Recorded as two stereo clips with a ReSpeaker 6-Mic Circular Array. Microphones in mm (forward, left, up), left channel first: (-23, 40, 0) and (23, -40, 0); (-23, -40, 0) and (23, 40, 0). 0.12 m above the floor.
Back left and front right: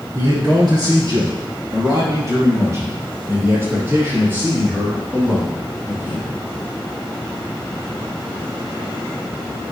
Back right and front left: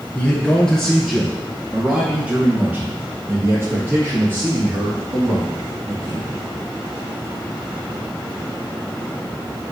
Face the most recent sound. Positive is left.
turn(degrees=10)